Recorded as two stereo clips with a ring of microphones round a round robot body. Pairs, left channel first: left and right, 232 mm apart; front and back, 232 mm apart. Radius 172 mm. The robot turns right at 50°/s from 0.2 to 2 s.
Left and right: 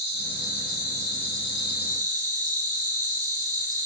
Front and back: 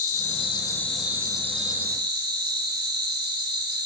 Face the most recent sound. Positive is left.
turn(degrees=140)